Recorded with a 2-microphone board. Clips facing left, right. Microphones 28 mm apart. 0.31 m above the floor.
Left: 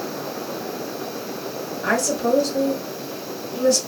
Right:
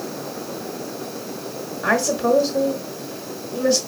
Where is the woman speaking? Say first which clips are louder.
Right 2 dB; 20° right (ahead or behind), 1.3 m.